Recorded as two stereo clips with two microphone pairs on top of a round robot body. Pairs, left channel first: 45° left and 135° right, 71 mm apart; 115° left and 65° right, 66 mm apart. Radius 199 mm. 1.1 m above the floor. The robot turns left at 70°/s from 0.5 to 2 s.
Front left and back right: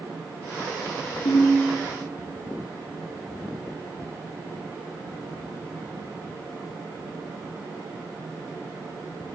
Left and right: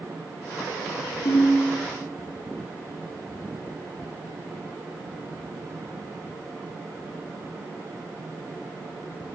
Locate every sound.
1.2 s a ringtone: 70° left, 0.6 m; by 1.6 s 40° left, 0.6 m